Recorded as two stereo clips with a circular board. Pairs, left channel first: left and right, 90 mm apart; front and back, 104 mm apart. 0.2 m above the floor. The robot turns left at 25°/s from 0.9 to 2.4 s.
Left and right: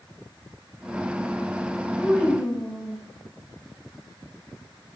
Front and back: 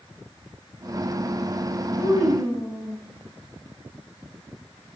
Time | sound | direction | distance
2.0 | a child speaking | 10° left | 5.5 m